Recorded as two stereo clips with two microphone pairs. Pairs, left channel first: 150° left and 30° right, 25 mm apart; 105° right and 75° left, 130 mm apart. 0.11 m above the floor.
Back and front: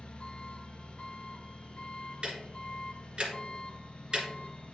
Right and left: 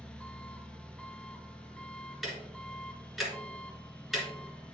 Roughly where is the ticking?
Ahead.